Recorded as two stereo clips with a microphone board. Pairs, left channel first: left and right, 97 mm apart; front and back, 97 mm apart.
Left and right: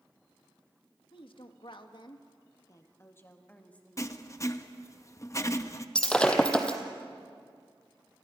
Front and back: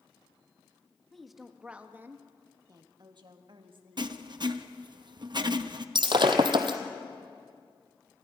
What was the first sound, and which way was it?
A woman speaking, 85° left.